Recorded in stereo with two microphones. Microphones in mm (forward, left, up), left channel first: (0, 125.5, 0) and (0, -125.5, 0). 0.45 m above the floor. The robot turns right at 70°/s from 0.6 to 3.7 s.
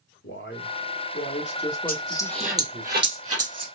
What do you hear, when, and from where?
0.2 s a man speaking: 80° left, 1.7 m; by 2.9 s 120° right, 1.7 m
1.9 s a dropped coin: 35° left (ahead or behind), 2.0 m; by 3.6 s 85° right, 2.0 m